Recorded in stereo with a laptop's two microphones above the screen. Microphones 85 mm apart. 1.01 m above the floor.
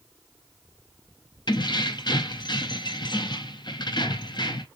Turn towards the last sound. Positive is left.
turn(degrees=60)  # may be behind; listen again after turning